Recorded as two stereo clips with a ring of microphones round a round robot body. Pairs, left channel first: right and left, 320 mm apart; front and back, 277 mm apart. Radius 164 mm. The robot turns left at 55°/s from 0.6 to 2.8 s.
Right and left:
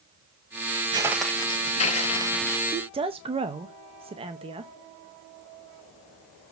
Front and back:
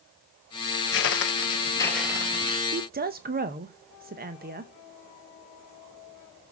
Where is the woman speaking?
155° left, 0.8 m; by 4.7 s 150° left, 0.8 m.